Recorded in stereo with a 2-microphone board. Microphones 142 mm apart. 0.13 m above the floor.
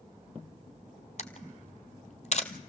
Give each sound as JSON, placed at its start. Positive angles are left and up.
{"t": 1.2, "sound": "a camera shutter", "side_deg": 55, "distance_m": 1.1}